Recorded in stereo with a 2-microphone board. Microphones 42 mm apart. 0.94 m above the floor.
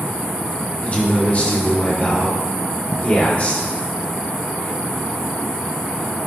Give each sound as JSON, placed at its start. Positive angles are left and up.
{"t": 0.8, "sound": "a man speaking", "side_deg": 35, "distance_m": 2.5}